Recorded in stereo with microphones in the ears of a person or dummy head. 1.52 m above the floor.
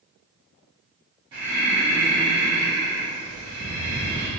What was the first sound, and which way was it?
Breathing, 20° right (ahead or behind).